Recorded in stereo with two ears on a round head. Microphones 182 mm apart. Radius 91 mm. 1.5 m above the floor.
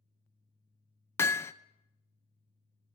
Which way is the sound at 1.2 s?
10° left (ahead or behind).